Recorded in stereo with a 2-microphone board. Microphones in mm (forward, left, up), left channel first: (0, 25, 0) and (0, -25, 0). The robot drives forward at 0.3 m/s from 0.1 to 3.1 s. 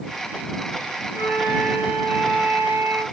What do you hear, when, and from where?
1.1 s a flute: 55° right (ahead or behind), 3.5 m; by 3.0 s 50° right (ahead or behind), 3.5 m